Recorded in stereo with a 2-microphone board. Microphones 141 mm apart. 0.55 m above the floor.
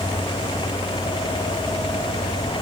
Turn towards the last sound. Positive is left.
No sound to turn to.